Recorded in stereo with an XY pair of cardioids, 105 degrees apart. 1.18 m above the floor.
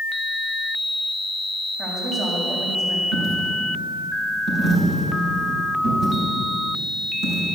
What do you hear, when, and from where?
1.8 s a woman speaking: 50° right, 6.5 m
3.1 s a dropped coin: 55° right, 6.5 m